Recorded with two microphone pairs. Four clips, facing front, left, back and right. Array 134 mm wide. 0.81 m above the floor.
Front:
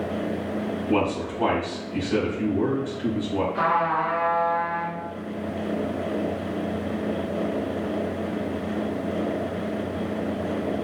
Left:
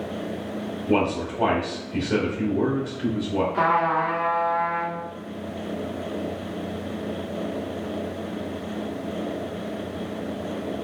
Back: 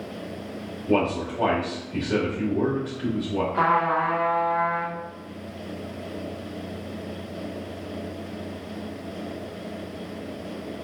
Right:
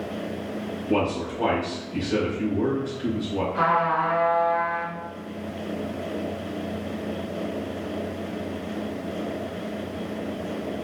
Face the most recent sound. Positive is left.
turn(degrees=160)